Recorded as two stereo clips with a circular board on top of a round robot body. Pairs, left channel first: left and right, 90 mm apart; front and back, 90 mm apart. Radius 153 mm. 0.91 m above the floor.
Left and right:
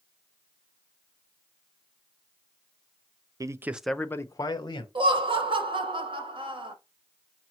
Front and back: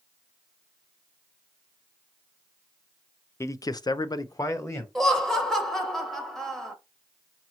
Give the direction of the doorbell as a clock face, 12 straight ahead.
No doorbell in this recording.